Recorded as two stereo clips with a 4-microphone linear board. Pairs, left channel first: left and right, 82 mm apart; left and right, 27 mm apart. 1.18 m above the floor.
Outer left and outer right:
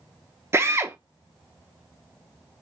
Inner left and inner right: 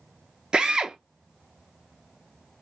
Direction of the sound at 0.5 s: 35° right (ahead or behind).